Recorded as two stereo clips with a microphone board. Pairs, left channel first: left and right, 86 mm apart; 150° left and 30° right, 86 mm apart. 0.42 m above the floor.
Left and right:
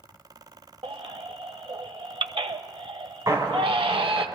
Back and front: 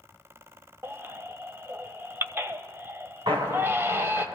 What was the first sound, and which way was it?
A baby crying, 95° right.